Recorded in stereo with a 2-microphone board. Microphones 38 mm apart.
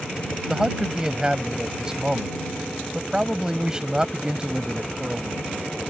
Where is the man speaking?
20° right (ahead or behind).